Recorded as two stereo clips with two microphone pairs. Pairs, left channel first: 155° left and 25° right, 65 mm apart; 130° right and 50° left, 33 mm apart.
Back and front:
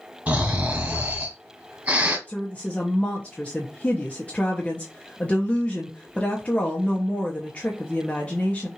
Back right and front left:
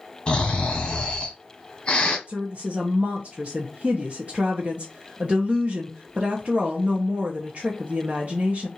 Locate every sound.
0.3 s snoring: 80° right, 1.6 m
2.3 s a woman speaking: 90° left, 0.9 m